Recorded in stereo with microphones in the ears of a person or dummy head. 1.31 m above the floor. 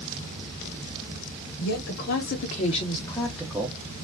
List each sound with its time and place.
1.6 s a woman speaking: 75° left (ahead or behind), 1.0 m; by 3.8 s 15° right (ahead or behind), 0.8 m